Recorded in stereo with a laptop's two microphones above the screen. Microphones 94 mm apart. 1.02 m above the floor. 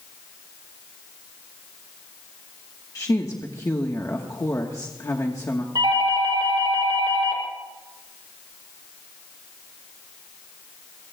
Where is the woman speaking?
35° left (ahead or behind), 1.2 m.